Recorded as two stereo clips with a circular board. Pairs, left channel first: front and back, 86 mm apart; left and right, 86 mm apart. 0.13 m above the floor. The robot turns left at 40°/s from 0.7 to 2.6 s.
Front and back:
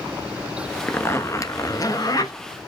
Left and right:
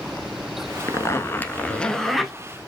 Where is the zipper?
55° left, 0.6 m; by 2.3 s 5° right, 0.6 m.